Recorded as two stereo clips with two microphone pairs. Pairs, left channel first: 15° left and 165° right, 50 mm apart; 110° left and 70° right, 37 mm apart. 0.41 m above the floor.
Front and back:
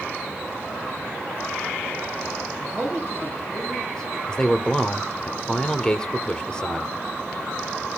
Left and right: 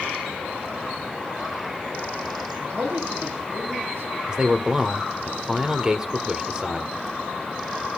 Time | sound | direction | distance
2.5 | a man speaking | 65° right | 9.5 m
4.3 | a man speaking | 40° right | 1.5 m